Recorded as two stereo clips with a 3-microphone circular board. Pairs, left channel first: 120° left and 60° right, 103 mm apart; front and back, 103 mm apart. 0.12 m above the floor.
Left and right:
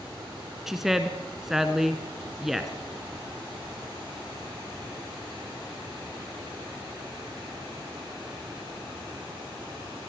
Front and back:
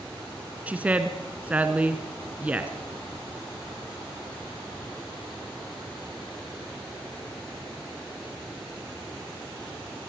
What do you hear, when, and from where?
0.7 s a woman speaking: 140° right, 1.4 m